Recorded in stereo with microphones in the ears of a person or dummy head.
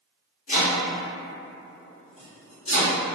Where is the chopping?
40° left (ahead or behind), 1.1 m.